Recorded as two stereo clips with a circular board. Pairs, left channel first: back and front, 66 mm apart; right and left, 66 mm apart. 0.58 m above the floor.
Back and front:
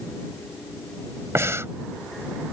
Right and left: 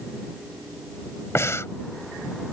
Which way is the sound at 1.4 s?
45° right.